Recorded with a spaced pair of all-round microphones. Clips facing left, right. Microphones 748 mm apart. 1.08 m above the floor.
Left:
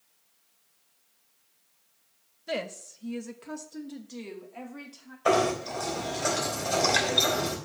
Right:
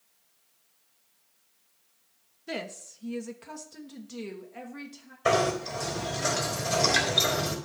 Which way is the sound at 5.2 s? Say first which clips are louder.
Left 1 dB; 55° right (ahead or behind).